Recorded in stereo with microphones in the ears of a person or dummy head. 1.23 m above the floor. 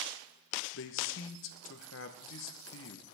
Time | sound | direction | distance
0.7 | a man speaking | 75° left (ahead or behind) | 0.9 m